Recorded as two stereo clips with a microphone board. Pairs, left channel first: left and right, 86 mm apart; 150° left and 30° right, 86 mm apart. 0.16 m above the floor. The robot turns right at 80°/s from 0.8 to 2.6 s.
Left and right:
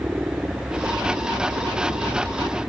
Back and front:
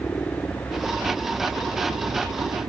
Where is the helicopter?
150° right; by 2.7 s 10° right.